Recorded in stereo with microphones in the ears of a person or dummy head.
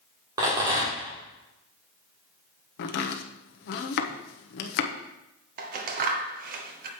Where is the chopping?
55° left (ahead or behind), 0.9 m.